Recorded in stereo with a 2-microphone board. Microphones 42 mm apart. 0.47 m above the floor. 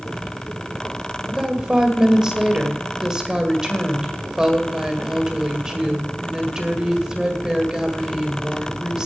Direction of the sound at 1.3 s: 15° right (ahead or behind).